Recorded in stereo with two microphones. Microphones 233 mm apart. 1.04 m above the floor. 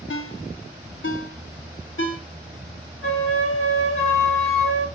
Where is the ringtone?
55° left (ahead or behind), 0.8 m.